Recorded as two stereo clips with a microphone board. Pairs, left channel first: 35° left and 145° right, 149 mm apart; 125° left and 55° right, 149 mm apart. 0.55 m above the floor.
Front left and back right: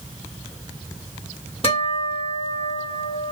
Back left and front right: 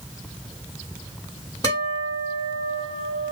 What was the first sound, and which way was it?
A guitar, 70° left.